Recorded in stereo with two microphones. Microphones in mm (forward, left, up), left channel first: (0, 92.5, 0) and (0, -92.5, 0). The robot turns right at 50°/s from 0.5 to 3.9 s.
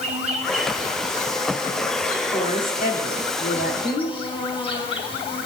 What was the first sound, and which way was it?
An insect, 140° right.